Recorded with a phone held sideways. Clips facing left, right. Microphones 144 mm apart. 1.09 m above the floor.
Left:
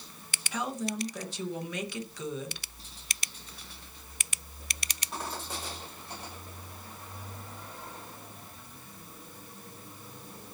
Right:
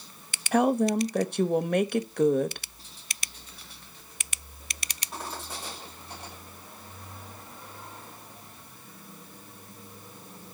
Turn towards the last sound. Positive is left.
turn(degrees=-60)  # may be behind; listen again after turning